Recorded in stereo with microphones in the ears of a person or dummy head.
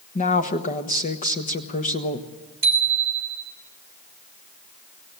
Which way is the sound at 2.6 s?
20° right (ahead or behind).